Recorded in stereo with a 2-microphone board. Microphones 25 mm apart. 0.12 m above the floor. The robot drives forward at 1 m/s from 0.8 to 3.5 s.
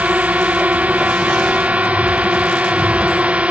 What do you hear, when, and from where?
0.0 s a drone: 65° right (ahead or behind); by 3.5 s 55° right (ahead or behind)